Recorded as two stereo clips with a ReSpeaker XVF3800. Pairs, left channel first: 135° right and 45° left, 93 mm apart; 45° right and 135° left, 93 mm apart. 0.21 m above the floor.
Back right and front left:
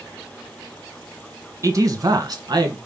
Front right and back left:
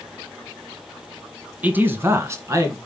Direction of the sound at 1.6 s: 75° left.